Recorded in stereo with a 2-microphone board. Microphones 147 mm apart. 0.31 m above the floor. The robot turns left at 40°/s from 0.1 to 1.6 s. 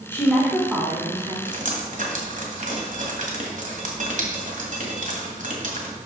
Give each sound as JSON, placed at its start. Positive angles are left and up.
{"t": 0.1, "sound": "a woman speaking", "azimuth_deg": 15, "distance_m": 2.0}
{"t": 1.4, "sound": "dripping", "side_deg": -60, "distance_m": 1.4}